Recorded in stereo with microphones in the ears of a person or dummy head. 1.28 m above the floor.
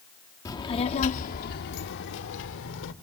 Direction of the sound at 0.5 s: 20° left (ahead or behind).